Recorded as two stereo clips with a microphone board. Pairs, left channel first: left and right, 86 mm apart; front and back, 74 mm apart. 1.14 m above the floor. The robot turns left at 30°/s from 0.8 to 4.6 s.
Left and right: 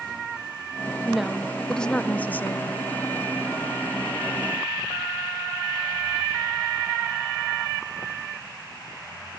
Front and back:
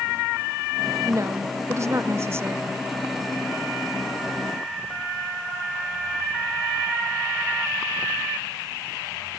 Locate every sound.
1.1 s a woman speaking: 170° right, 0.7 m; by 2.8 s 135° left, 0.7 m